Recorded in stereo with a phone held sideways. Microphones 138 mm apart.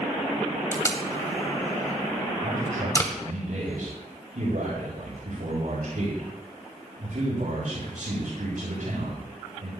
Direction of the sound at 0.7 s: 25° left (ahead or behind).